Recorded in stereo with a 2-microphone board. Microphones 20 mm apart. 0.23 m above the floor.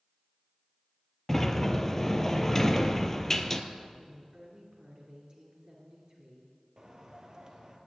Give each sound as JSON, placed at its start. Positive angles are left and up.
{"t": 1.3, "sound": "a sliding door", "side_deg": 20, "distance_m": 0.8}
{"t": 4.0, "sound": "a woman speaking", "side_deg": -30, "distance_m": 2.5}
{"t": 6.8, "sound": "a bird", "side_deg": -35, "distance_m": 1.5}